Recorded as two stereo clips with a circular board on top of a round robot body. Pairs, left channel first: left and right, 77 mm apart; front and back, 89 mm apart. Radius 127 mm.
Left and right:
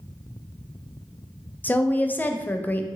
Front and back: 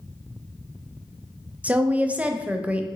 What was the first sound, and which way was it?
A woman speaking, 125° left.